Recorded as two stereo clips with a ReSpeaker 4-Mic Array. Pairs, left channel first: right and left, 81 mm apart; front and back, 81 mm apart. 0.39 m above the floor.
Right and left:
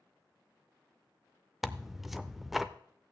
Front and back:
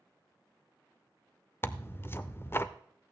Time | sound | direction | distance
1.6 | tearing paper | 5° left | 0.5 m